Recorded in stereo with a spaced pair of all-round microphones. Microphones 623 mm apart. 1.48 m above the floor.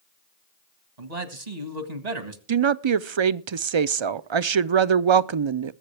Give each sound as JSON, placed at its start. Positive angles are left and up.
{"t": 1.0, "sound": "a man speaking", "side_deg": -80, "distance_m": 1.8}
{"t": 2.5, "sound": "a woman speaking", "side_deg": -50, "distance_m": 0.5}